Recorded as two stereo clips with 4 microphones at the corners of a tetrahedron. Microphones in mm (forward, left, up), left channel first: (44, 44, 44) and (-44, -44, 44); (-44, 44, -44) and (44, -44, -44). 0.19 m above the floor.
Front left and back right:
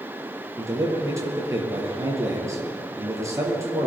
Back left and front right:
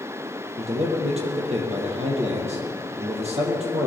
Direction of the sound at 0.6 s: 70° right.